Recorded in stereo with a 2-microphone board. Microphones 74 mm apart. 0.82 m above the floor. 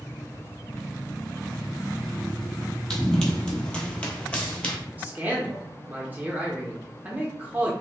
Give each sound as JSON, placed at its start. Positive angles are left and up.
{"t": 2.9, "sound": "running footsteps", "side_deg": 10, "distance_m": 1.1}
{"t": 5.0, "sound": "a man speaking", "side_deg": -25, "distance_m": 0.6}